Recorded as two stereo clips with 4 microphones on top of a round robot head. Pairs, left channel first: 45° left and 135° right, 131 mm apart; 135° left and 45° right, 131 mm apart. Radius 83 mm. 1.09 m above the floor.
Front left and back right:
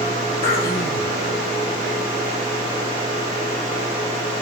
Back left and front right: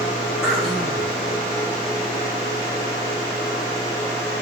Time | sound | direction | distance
0.4 | throat clearing | 40° left | 6.5 m